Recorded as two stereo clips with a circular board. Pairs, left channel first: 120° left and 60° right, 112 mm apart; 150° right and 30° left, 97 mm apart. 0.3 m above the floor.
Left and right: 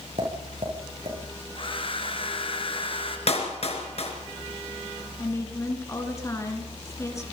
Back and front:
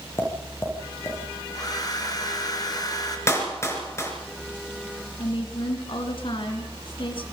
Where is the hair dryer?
160° left, 3 m.